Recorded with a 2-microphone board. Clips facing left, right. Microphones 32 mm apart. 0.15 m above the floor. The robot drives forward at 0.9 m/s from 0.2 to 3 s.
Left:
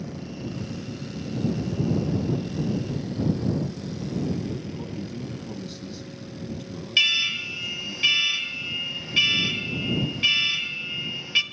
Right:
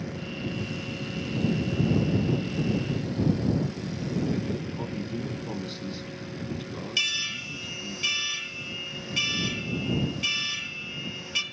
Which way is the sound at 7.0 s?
25° left (ahead or behind).